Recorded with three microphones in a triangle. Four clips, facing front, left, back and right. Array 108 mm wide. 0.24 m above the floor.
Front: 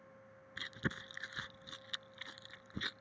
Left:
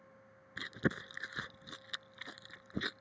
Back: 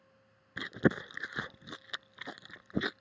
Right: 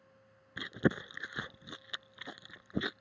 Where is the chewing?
160° right.